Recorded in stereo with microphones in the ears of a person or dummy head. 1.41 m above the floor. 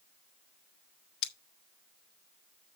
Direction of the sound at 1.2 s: 70° left (ahead or behind).